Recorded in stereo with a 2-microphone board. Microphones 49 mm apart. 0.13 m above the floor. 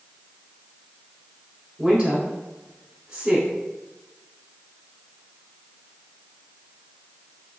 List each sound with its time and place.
1.8 s a woman speaking: 30° right (ahead or behind), 1.2 m